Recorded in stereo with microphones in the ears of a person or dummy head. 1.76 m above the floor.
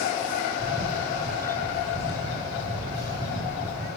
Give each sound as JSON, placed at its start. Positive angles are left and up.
{"t": 0.6, "sound": "a camera shutter", "side_deg": 15, "distance_m": 4.0}